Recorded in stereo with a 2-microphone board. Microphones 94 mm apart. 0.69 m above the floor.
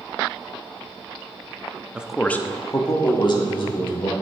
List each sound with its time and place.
1.9 s a man speaking: 15° right (ahead or behind), 0.5 m; by 4.1 s 60° left (ahead or behind), 1.8 m